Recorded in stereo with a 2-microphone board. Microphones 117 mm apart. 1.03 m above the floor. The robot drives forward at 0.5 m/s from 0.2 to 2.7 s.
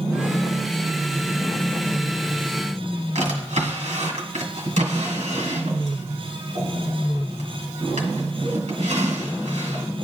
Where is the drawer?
80° right, 2 m.